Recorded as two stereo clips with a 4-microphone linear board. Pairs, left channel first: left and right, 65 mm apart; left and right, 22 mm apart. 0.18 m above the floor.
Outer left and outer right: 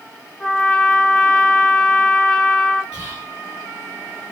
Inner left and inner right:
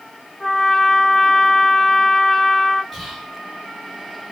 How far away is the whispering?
About 1.5 m.